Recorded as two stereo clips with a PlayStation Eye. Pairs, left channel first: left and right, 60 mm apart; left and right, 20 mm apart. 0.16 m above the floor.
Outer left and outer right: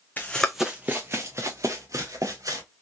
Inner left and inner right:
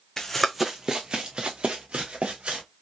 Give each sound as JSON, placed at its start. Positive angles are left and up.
{"t": 0.2, "sound": "running footsteps", "side_deg": 25, "distance_m": 0.6}